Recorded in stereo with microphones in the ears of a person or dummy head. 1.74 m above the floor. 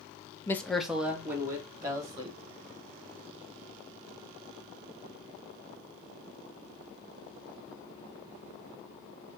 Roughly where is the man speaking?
Centre.